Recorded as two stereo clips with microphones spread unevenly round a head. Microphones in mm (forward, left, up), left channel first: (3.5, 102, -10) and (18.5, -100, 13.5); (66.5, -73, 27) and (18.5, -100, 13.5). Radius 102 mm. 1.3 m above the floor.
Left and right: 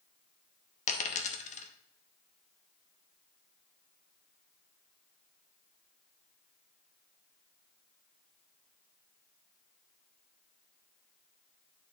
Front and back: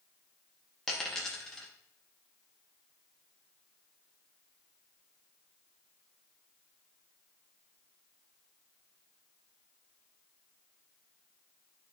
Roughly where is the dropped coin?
Left.